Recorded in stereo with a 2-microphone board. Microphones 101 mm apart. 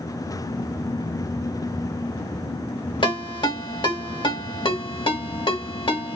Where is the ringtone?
55° left (ahead or behind), 1.5 m.